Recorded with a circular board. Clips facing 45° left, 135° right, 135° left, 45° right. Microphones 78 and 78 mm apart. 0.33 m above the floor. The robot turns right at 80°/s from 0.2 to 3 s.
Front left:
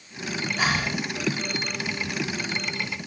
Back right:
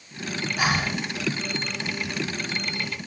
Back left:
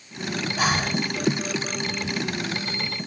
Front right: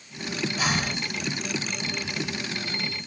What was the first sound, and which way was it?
Breathing, 145° left.